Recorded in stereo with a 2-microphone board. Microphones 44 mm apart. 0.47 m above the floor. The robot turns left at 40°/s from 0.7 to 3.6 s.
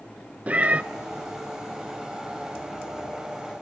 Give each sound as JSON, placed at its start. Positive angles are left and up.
{"t": 0.5, "sound": "a cat meowing", "side_deg": -35, "distance_m": 0.6}